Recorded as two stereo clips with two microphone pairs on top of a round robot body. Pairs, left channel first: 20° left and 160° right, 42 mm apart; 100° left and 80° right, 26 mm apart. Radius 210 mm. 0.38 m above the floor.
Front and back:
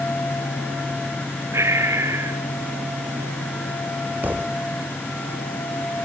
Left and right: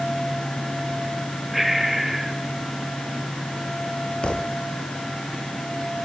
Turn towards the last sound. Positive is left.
turn(degrees=145)